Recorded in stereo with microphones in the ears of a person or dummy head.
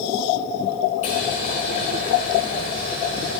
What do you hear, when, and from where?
1.0 s boiling: 30° left (ahead or behind), 1.3 m